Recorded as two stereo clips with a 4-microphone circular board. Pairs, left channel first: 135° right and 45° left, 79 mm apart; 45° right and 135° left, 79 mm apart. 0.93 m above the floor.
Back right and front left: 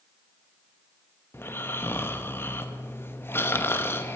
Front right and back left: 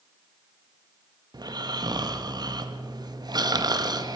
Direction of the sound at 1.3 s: 165° left.